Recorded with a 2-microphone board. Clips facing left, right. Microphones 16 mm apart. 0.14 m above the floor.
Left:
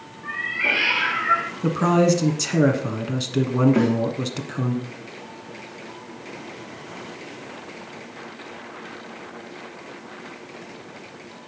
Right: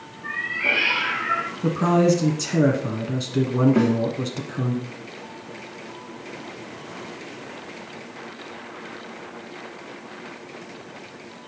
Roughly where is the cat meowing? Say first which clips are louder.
Even; centre.